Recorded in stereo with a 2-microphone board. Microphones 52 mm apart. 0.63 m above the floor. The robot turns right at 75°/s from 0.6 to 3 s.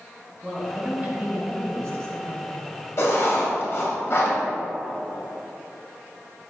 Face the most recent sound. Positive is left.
turn(degrees=50)  # may be behind; listen again after turning